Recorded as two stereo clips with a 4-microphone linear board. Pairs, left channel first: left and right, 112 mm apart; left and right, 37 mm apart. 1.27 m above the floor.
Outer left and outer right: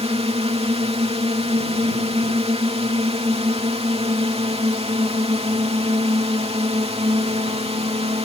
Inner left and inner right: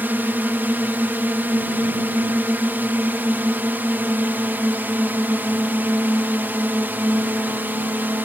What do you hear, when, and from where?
0.0 s a drone: 65° right (ahead or behind)